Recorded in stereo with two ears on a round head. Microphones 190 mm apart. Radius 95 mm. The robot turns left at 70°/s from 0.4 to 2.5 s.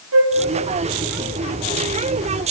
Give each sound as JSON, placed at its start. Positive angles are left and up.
{"t": 0.1, "sound": "a flute", "side_deg": -75, "distance_m": 4.5}